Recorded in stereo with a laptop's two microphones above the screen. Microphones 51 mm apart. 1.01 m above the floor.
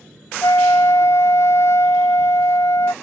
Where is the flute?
70° left (ahead or behind).